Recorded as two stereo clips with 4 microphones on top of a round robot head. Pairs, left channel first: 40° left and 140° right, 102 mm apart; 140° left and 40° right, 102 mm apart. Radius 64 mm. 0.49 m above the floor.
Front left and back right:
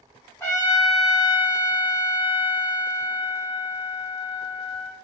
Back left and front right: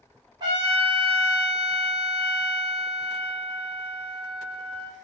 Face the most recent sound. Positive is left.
turn(degrees=-20)